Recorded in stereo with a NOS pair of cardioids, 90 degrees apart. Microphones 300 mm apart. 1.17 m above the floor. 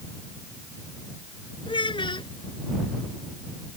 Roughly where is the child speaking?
Ahead.